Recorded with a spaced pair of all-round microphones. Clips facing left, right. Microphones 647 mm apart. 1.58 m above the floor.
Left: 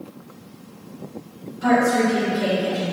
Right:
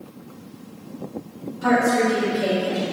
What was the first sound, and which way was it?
A woman speaking, 70° left (ahead or behind).